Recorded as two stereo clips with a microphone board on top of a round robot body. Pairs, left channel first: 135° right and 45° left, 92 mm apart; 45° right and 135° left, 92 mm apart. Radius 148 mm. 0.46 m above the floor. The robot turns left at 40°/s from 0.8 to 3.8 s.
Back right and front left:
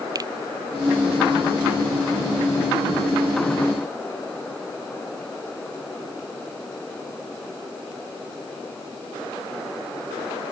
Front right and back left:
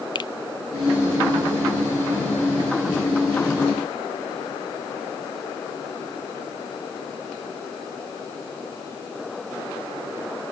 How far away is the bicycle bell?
No bicycle bell in this recording.